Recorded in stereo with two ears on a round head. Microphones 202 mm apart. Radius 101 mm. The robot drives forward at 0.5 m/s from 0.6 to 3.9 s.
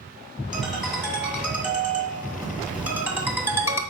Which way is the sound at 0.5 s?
5° right (ahead or behind).